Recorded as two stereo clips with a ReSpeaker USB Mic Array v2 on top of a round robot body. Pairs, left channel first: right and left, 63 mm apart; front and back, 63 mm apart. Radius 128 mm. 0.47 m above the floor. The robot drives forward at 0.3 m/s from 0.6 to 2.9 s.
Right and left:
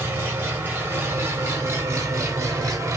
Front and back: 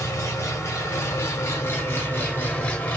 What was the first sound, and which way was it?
An engine running, 35° left.